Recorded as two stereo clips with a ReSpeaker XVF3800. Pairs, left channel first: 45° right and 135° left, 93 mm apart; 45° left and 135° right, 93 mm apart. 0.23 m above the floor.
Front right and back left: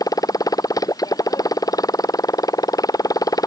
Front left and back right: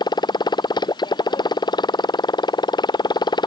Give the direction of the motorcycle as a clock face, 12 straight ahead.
12 o'clock.